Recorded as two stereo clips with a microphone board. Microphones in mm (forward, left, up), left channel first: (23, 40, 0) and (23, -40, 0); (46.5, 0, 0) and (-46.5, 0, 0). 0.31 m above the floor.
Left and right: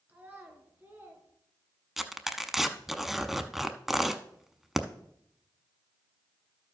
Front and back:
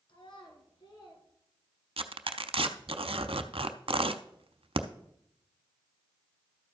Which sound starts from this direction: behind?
Tearing paper, at 2.0 s.